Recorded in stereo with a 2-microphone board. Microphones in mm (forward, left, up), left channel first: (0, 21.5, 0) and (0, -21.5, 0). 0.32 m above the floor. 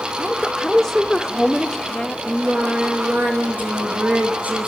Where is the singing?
35° right (ahead or behind), 3.5 m.